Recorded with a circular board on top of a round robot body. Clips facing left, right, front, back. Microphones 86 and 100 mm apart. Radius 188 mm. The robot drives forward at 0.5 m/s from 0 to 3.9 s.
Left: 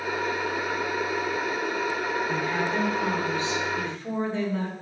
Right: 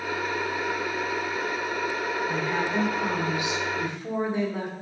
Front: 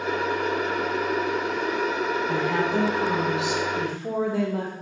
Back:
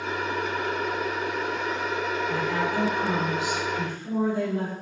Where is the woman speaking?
10° right, 3 m; by 4.7 s 15° right, 2.5 m.